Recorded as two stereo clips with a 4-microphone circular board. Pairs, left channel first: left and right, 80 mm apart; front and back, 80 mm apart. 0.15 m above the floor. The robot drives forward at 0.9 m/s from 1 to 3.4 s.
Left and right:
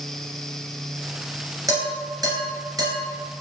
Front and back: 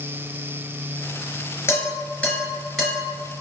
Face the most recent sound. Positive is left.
turn(degrees=-115)